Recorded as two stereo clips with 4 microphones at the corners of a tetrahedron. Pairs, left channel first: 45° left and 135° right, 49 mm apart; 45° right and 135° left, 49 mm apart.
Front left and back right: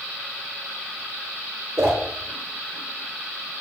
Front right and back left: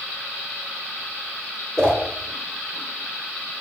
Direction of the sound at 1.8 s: 125° right.